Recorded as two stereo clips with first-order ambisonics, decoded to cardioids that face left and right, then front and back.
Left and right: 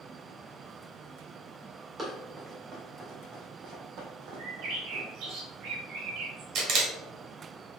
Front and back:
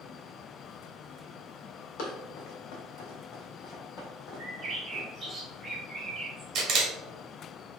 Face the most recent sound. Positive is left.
turn(degrees=-130)